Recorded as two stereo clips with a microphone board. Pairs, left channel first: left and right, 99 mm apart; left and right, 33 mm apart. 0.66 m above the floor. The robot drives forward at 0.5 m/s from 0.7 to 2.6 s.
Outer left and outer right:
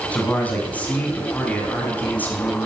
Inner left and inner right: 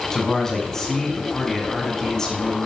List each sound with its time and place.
0.1 s a man speaking: 15° left (ahead or behind), 7.5 m